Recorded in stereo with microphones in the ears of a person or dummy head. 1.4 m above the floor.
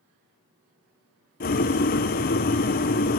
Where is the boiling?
45° left (ahead or behind), 0.6 m.